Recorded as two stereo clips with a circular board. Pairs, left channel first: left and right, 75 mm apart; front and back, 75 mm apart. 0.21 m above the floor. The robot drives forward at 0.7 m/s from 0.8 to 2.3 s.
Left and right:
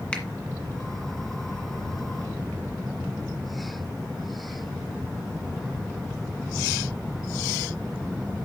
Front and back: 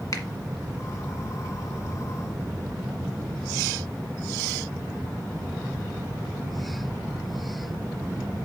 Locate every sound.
0.1 s a finger snap: 20° left, 1.6 m